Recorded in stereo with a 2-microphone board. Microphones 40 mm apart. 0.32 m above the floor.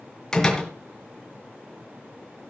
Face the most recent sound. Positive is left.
turn(degrees=15)  # may be behind; listen again after turning